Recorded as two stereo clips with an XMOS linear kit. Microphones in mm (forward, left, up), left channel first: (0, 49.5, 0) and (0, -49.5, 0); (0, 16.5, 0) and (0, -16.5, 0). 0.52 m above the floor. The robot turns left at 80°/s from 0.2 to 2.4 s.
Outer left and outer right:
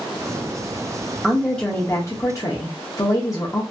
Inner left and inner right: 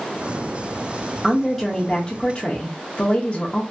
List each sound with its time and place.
1.2 s a woman speaking: 175° right, 0.7 m; by 3.6 s 90° left, 0.7 m